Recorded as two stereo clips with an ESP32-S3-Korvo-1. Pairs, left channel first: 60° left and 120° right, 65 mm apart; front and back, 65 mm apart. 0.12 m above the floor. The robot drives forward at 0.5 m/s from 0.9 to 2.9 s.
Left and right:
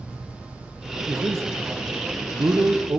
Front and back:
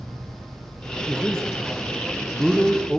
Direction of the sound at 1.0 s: 75° right.